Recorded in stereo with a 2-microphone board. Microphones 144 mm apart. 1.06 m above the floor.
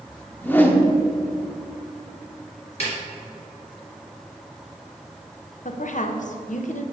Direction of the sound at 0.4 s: 15° left (ahead or behind).